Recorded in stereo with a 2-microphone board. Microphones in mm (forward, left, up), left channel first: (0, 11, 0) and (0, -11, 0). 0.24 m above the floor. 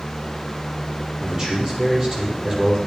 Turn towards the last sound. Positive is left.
turn(degrees=-25)  # may be behind; listen again after turning